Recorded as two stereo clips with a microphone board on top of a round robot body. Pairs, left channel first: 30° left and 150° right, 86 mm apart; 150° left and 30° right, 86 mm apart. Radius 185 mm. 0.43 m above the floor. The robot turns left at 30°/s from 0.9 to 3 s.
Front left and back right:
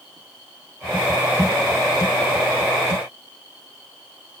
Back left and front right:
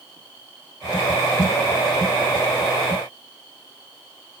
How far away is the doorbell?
I don't hear a doorbell.